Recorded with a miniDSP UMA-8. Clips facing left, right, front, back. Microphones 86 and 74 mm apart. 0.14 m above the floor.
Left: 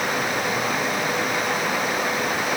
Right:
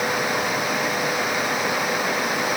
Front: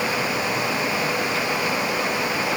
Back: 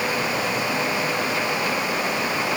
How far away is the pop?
No pop in this recording.